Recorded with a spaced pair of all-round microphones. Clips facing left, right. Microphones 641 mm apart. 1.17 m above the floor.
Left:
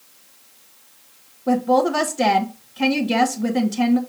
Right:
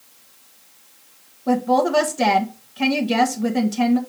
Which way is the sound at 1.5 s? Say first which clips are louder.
Left 1 dB; centre (ahead or behind).